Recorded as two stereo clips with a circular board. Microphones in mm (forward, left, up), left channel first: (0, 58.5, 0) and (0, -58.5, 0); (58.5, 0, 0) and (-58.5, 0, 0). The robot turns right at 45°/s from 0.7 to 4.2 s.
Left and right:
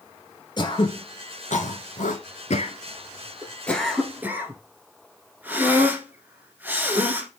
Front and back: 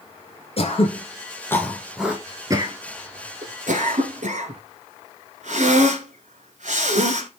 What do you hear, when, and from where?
0.6 s throat clearing: 35° left, 1.3 m; by 7.3 s 165° right, 1.3 m